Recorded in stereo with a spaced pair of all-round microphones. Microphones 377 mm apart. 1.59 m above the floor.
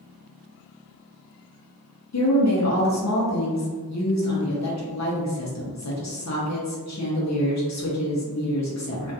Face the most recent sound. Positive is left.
turn(degrees=50)  # may be behind; listen again after turning